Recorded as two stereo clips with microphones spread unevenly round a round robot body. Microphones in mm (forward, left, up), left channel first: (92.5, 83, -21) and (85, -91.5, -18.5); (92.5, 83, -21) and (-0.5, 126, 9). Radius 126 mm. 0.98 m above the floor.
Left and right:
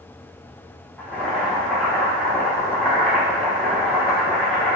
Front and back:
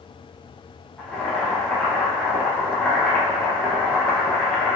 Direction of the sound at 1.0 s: 10° left.